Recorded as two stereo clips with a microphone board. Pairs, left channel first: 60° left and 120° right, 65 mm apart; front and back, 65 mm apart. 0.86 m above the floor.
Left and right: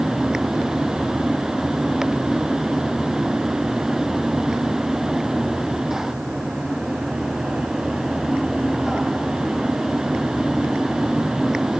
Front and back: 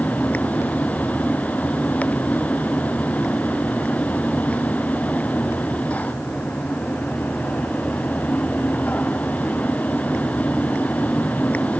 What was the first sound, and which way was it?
Only background noise.